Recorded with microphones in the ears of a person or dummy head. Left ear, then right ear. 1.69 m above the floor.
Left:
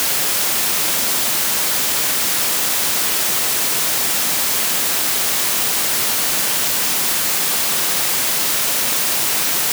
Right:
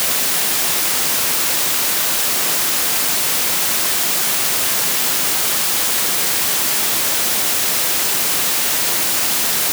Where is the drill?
I don't hear a drill.